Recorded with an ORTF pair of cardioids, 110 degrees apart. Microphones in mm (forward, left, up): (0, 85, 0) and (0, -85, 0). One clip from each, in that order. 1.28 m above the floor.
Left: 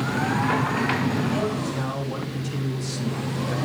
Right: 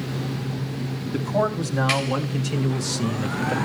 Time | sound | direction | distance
1.1 | a man speaking | 55° right | 3.5 m